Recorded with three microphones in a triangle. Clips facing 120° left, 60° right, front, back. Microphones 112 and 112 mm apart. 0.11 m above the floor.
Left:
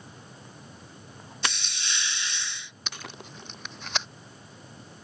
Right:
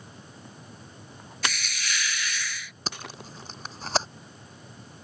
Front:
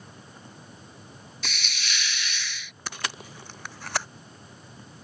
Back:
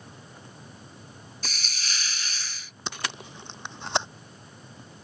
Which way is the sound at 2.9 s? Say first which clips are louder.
Right 3 dB, back 1 dB; 115° right.